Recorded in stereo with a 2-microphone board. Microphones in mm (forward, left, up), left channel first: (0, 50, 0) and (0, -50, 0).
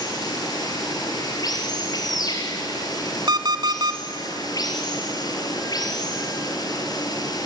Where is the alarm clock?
45° right (ahead or behind), 1.1 m.